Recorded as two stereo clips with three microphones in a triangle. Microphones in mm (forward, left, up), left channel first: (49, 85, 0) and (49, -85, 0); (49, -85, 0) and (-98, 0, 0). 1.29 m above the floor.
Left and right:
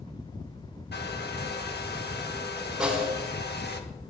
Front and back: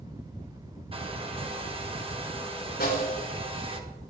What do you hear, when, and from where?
0.9 s a hair dryer: 95° left, 1.8 m
2.8 s a snare drum: 5° right, 6 m